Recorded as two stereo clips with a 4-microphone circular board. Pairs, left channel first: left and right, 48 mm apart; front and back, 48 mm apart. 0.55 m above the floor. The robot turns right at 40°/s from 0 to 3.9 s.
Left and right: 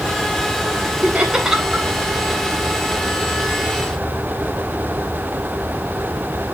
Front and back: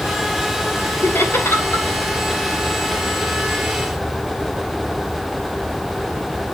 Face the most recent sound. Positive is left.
turn(degrees=80)